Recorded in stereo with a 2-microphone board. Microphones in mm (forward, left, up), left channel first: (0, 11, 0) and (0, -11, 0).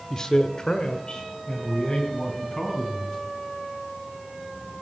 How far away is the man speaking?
About 0.9 m.